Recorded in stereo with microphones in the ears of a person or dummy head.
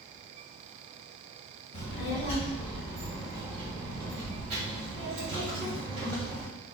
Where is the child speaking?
35° left (ahead or behind), 1.1 m; by 6.5 s 65° right (ahead or behind), 2.5 m.